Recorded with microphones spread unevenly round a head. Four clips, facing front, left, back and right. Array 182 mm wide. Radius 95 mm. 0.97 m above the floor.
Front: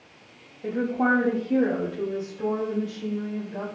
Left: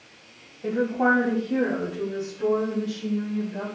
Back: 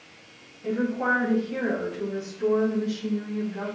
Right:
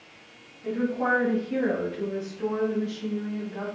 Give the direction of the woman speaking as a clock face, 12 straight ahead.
10 o'clock.